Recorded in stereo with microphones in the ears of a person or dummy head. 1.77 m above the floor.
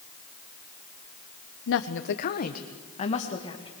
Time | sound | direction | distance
1.7 | a woman speaking | 70° left (ahead or behind) | 1.4 m